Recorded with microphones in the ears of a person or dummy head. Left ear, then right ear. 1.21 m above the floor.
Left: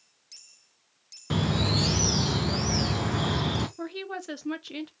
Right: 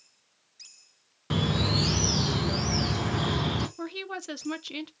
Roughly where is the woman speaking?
Centre.